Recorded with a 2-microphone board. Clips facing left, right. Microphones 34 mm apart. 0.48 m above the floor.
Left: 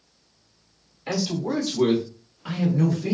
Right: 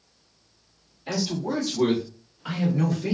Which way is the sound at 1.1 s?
40° left (ahead or behind).